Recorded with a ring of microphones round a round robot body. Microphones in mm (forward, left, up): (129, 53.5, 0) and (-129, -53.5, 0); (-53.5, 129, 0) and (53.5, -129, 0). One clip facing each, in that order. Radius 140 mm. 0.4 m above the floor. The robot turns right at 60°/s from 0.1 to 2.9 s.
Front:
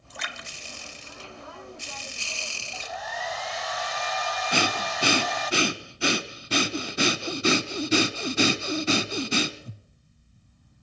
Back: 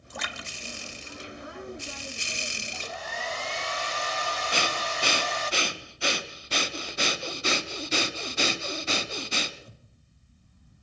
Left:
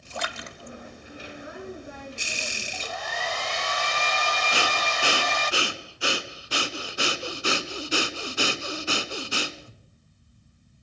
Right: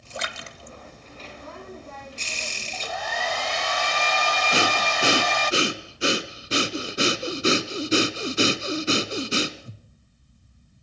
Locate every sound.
0.1 s a splash: 135° right, 1.4 m; by 2.1 s 15° right, 1.4 m
2.7 s a hair dryer: 105° right, 0.5 m; by 5.5 s 95° right, 0.5 m
4.5 s breathing: straight ahead, 1.1 m